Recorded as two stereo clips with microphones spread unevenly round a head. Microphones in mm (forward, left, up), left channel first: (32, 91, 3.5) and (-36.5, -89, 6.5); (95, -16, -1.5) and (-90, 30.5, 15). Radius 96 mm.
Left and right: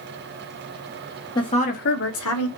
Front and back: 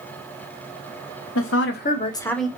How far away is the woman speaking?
About 0.8 m.